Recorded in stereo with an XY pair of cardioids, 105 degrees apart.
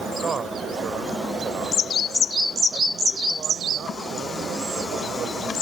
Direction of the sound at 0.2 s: 40° right.